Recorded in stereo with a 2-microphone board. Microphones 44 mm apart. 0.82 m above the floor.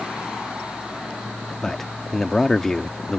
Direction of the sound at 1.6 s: 10° left (ahead or behind).